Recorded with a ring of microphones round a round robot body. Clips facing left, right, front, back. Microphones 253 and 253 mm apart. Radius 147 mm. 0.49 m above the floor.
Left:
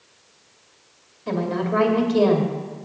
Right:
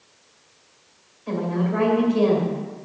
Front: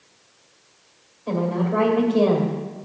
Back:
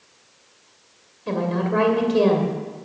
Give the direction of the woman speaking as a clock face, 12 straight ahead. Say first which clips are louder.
Left 1 dB, even; 8 o'clock.